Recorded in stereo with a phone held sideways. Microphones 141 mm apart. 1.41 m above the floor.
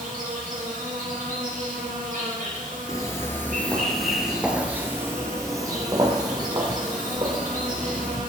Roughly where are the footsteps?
Left.